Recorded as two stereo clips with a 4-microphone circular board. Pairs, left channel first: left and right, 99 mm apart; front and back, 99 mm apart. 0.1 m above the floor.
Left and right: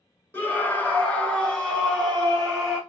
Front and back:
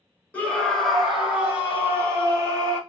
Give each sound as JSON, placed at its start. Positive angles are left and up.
{"t": 0.3, "sound": "a scream", "azimuth_deg": 55, "distance_m": 1.3}